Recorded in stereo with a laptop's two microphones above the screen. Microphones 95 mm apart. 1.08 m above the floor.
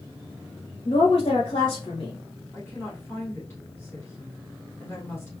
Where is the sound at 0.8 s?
65° left (ahead or behind), 1.1 m.